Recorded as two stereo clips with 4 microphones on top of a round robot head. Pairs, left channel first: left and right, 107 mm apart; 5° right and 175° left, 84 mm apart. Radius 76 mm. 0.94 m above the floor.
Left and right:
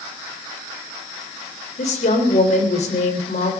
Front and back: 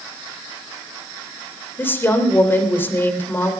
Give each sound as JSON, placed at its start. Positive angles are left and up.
{"t": 1.8, "sound": "a woman speaking", "azimuth_deg": 60, "distance_m": 3.0}